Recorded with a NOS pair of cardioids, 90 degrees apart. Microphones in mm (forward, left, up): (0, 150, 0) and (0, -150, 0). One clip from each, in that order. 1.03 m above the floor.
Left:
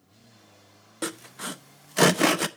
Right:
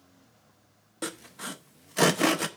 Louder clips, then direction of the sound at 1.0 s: Left 3 dB; 15° left.